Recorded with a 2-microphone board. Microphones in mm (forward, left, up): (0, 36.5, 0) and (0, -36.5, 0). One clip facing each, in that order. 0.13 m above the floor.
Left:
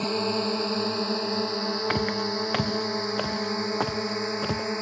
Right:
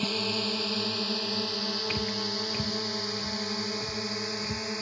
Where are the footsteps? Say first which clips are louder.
Left 6 dB; 55° left (ahead or behind); by 4.7 s 85° left.